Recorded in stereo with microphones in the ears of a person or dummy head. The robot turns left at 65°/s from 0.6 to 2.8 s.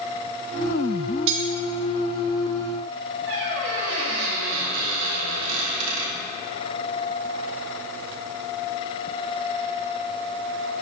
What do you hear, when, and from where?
1.3 s cutlery clinking: 60° right (ahead or behind), 1.8 m; by 1.5 s 65° right (ahead or behind), 1.8 m
3.3 s a squeak: 70° right (ahead or behind), 2.5 m